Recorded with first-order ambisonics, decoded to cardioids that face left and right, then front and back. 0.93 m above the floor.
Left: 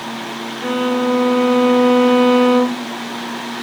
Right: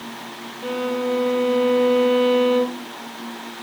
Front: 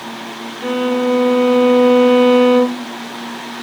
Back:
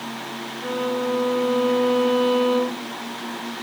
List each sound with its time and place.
0.6 s a violin: 50° left, 0.5 m